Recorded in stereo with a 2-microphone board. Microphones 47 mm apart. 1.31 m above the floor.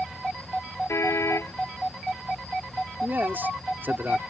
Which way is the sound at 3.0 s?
45° right (ahead or behind).